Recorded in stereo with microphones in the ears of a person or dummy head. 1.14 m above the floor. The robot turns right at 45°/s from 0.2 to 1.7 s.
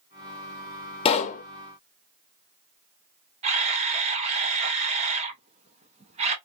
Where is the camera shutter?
30° right (ahead or behind), 0.6 m.